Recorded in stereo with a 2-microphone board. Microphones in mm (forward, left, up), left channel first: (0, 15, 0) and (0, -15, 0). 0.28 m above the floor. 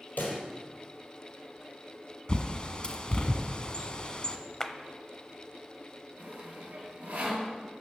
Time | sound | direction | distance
0.2 | a pop | 75° left (ahead or behind) | 4 m
2.3 | a bird | 30° left (ahead or behind) | 1.1 m
4.6 | a clap | 20° left (ahead or behind) | 0.9 m
6.2 | sawing | 65° right (ahead or behind) | 5.5 m